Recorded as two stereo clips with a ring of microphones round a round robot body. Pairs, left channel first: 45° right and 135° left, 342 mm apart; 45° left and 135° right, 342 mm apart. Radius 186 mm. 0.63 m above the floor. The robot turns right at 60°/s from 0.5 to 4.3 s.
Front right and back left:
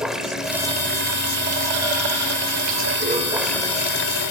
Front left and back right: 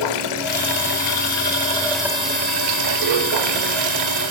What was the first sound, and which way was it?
Running water, 45° left.